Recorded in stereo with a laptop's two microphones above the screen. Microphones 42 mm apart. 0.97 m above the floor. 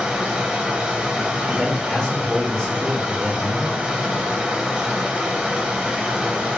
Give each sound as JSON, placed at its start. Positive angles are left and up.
{"t": 0.0, "sound": "running water", "side_deg": -15, "distance_m": 1.3}
{"t": 1.5, "sound": "a man speaking", "side_deg": 15, "distance_m": 1.0}